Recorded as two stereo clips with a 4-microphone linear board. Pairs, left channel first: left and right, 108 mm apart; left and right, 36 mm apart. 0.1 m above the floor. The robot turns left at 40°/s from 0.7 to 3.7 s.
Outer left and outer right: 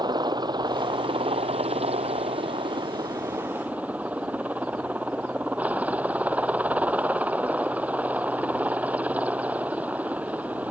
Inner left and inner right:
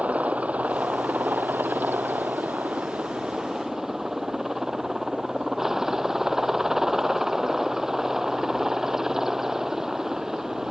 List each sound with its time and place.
0.0 s a helicopter: 45° right; by 10.7 s 165° right